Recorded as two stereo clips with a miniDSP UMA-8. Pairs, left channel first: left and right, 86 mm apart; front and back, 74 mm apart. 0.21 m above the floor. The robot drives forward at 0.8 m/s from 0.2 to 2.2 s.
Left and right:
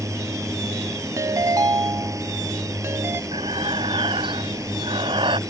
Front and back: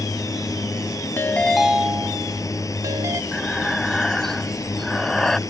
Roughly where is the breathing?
Right.